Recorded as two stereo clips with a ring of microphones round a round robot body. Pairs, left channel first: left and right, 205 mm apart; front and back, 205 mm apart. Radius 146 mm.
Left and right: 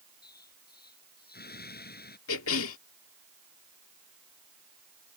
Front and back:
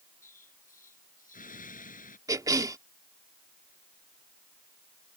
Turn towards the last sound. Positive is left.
turn(degrees=105)